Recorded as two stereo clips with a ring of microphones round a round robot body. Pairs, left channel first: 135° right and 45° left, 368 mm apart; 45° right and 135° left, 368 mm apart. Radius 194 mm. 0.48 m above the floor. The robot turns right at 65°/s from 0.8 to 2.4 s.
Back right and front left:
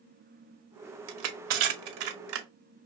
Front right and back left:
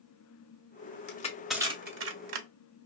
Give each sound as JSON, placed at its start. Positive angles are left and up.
{"t": 1.1, "sound": "crushing", "azimuth_deg": 20, "distance_m": 1.0}